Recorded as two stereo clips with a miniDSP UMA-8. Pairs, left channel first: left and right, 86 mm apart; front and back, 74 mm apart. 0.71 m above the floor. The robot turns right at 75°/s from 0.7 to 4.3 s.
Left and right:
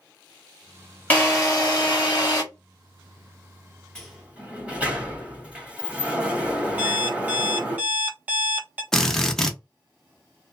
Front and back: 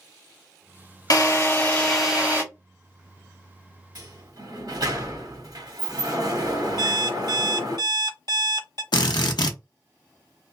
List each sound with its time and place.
1.1 s a drill: 20° left, 1.3 m; by 2.4 s 120° left, 1.3 m
4.0 s a sliding door: 170° left, 1.6 m; by 7.8 s 165° right, 1.6 m
6.8 s an alarm clock: 160° right, 1.1 m
8.9 s a drill: 5° left, 0.6 m